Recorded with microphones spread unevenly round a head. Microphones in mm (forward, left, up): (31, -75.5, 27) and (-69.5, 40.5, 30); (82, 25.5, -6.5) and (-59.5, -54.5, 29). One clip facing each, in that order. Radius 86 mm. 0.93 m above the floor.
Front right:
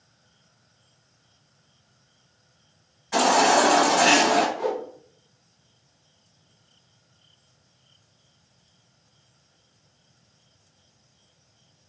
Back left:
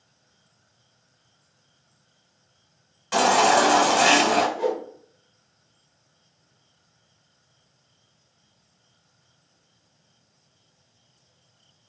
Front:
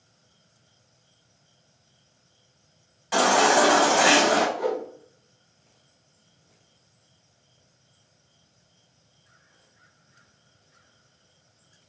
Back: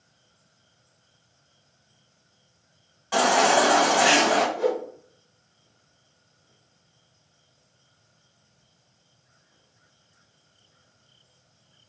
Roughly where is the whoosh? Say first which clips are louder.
Back left 2 dB, back 2 dB; behind.